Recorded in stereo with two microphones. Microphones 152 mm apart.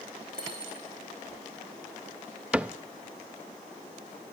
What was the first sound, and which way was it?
A dropped coin, 70° right (ahead or behind).